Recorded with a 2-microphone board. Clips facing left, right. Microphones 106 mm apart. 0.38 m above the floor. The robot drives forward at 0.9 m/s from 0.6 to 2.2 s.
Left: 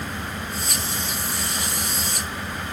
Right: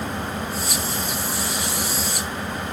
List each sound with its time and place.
0.0 s an engine running: 35° right (ahead or behind); by 2.7 s 30° right (ahead or behind)